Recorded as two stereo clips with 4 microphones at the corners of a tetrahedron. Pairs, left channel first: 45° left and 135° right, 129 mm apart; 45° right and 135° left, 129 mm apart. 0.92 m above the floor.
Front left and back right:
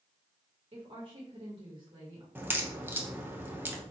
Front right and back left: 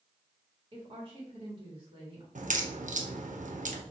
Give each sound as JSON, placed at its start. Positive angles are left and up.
{"t": 0.7, "sound": "a woman speaking", "azimuth_deg": -175, "distance_m": 1.8}
{"t": 2.4, "sound": "a crack", "azimuth_deg": 150, "distance_m": 0.7}